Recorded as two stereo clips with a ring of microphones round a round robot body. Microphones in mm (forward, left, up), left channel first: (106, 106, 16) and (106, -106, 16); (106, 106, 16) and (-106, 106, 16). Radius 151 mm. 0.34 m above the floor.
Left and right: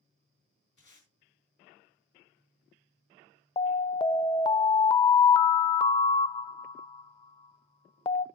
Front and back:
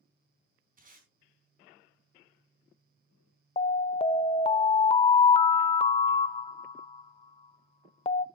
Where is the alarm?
40° left, 0.6 m.